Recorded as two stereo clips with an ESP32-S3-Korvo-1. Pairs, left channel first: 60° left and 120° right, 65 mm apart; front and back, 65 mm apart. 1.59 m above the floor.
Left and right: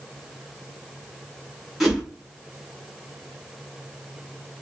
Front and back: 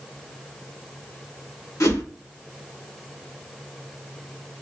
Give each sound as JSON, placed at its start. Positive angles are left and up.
{"t": 1.8, "sound": "a whoosh", "azimuth_deg": -30, "distance_m": 2.0}